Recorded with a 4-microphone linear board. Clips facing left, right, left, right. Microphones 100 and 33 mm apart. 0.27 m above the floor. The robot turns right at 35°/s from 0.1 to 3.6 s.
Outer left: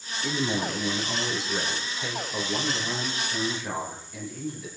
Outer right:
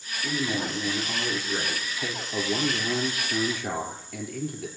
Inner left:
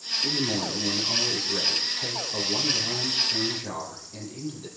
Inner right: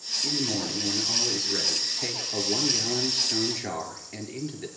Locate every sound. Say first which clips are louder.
0.2 s a man speaking: outer left 1 dB, inner left 1 dB; 170° left, 4.5 m; by 4.7 s 70° right, 4.5 m